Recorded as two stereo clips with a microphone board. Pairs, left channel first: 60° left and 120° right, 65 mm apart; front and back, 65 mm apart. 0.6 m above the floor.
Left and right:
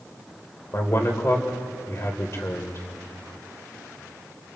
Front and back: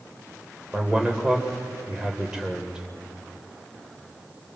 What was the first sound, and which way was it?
A man speaking, 105° left.